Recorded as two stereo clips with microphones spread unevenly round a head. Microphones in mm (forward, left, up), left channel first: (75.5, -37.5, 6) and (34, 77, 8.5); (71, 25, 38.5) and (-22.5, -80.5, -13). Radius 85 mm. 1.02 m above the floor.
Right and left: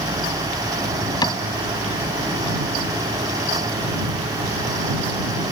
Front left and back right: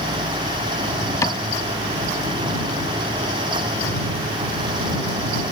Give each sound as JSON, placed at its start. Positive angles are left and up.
{"t": 1.2, "sound": "a cupboard door", "azimuth_deg": -15}